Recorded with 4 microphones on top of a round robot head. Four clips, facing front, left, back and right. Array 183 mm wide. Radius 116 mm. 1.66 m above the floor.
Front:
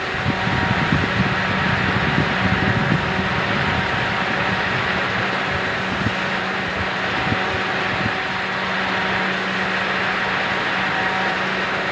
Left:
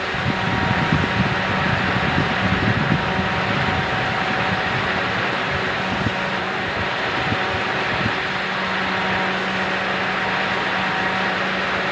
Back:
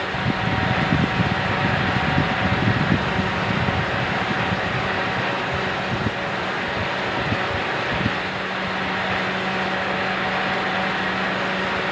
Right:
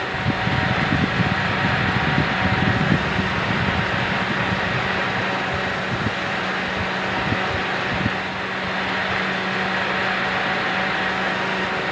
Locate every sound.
Only background noise.